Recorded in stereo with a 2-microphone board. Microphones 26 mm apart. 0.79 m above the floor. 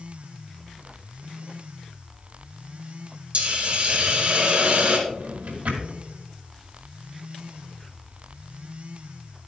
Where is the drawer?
70° right (ahead or behind), 2 m.